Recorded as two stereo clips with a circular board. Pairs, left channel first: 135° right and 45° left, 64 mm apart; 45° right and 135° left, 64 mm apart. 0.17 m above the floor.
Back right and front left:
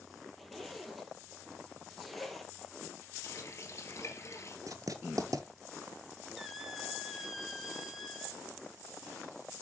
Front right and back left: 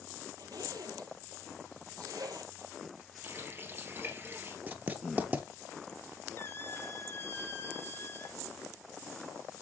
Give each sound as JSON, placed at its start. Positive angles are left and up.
{"t": 0.4, "sound": "a zipper", "azimuth_deg": 135, "distance_m": 1.4}
{"t": 3.2, "sound": "a running tap", "azimuth_deg": -175, "distance_m": 1.9}
{"t": 4.7, "sound": "writing", "azimuth_deg": 75, "distance_m": 1.0}
{"t": 6.4, "sound": "a squeak", "azimuth_deg": -40, "distance_m": 1.1}